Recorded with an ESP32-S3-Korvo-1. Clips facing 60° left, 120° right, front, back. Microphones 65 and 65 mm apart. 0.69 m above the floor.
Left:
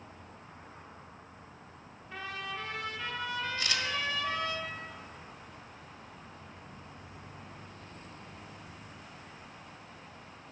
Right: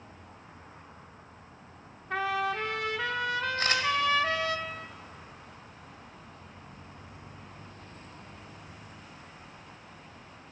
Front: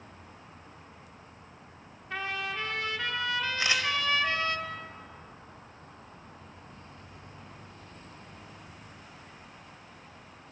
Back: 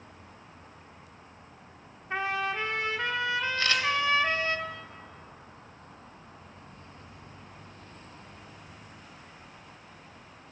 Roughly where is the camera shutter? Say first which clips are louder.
Right 6 dB, even; right.